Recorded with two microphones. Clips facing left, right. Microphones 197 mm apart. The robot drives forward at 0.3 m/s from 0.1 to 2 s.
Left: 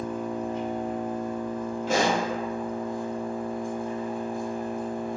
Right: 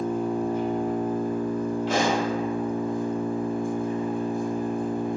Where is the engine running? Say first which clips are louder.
Right 5 dB; 35° right (ahead or behind), 1.2 m; by 5.2 s 55° right (ahead or behind), 0.8 m.